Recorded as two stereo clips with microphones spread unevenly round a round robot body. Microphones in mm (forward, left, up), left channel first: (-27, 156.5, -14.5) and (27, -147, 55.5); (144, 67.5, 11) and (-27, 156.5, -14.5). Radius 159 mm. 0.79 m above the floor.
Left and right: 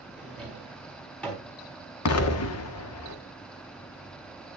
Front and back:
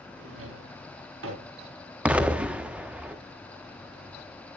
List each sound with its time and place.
0.2 s a drawer: 175° right, 4.5 m
2.0 s an explosion: 70° left, 1.4 m